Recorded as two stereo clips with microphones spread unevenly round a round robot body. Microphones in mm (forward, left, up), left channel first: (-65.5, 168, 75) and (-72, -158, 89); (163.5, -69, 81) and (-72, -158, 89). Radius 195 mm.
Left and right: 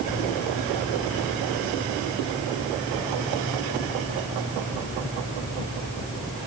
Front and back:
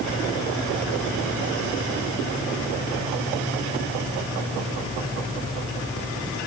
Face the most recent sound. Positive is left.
No sound to turn to.